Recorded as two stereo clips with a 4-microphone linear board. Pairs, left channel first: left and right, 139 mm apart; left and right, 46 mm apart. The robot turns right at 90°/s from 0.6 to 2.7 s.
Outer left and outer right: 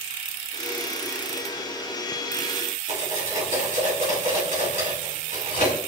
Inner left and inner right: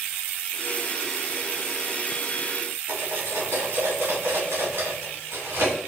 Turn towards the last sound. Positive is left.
turn(degrees=-70)  # may be behind; listen again after turning